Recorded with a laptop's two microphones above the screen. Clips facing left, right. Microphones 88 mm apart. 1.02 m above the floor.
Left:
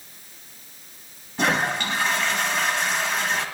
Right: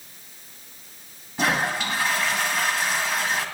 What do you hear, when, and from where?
1.4 s a toilet flushing: 5° right (ahead or behind), 2 m